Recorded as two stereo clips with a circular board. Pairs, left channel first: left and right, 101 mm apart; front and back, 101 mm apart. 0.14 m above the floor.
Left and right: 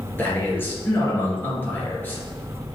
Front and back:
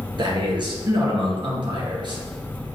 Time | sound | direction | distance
0.2 | a man speaking | 155° left | 2.5 m